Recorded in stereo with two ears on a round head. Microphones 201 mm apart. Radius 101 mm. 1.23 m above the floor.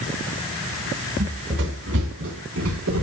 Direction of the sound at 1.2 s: 50° right (ahead or behind).